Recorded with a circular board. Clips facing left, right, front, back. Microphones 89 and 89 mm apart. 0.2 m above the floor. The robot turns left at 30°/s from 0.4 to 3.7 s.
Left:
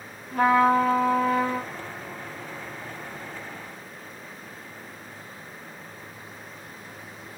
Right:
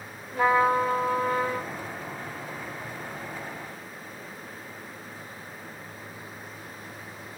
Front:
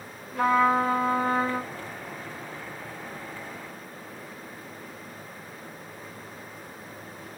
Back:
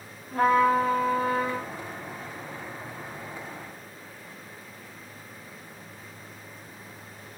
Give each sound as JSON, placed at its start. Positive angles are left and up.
{"t": 0.3, "sound": "a trumpet", "azimuth_deg": 130, "distance_m": 4.5}